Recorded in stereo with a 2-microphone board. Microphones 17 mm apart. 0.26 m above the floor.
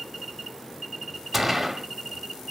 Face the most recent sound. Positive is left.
turn(degrees=-10)  # may be behind; listen again after turning